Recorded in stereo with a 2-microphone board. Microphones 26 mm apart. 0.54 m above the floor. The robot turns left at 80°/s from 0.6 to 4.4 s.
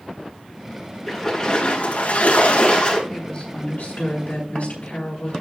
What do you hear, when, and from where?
1.1 s a splash: 175° right, 5.5 m; by 3.0 s 30° left, 5.5 m
3.1 s a woman speaking: 170° left, 7 m; by 5.3 s 65° left, 7 m